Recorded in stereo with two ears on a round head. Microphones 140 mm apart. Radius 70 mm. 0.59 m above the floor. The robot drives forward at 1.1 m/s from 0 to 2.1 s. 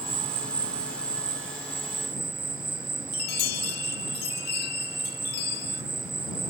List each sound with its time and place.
0.0 s an insect: 40° right (ahead or behind); by 6.5 s 20° right (ahead or behind)
3.1 s a chime: 65° left (ahead or behind)